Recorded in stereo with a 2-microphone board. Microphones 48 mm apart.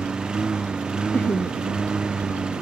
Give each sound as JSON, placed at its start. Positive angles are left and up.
{"t": 0.0, "sound": "a lawn mower", "side_deg": -15}
{"t": 1.1, "sound": "laughter", "side_deg": 35}